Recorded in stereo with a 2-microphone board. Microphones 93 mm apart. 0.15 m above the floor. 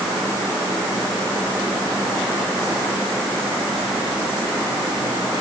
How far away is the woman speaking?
No woman speaking in this recording.